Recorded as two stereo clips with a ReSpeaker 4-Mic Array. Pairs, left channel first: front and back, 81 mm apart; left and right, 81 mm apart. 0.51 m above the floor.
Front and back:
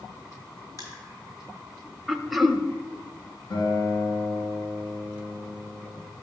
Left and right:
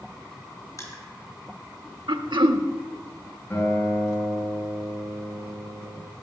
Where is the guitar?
30° left, 6.5 m.